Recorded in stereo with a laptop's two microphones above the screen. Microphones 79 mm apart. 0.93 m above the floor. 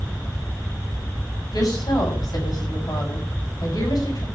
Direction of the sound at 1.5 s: 55° left (ahead or behind).